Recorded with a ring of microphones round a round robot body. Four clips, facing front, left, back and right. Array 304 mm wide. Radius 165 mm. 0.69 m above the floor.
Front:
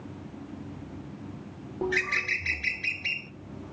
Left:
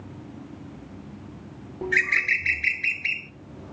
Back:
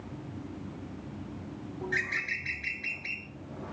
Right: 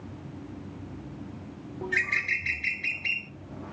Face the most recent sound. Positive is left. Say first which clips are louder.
# left 5 dB, front 6 dB
turn(degrees=25)